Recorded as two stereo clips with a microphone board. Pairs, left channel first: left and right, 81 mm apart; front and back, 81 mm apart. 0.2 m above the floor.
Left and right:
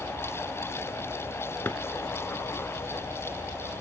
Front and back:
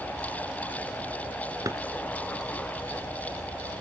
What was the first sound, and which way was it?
A drawer, 150° left.